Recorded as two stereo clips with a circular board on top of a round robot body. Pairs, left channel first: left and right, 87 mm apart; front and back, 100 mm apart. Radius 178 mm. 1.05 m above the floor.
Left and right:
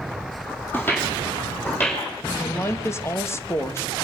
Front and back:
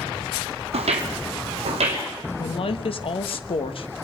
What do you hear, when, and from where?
0.7 s footsteps: 160° left, 2 m
2.4 s a woman speaking: 30° left, 1.5 m